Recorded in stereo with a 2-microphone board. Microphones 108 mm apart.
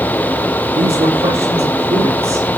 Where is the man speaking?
65° right (ahead or behind), 8.5 m.